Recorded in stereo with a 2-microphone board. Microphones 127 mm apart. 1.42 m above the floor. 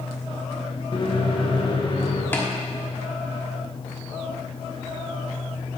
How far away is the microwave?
About 1.1 m.